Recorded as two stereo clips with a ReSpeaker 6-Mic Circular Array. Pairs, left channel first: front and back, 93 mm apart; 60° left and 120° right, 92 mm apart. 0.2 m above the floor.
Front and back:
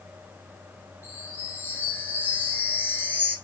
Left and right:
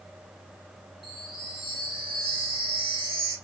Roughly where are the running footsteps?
No running footsteps in this recording.